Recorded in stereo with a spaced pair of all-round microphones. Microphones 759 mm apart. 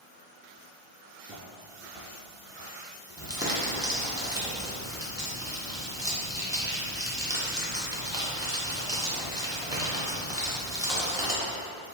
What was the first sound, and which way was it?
Footsteps, 10° right (ahead or behind).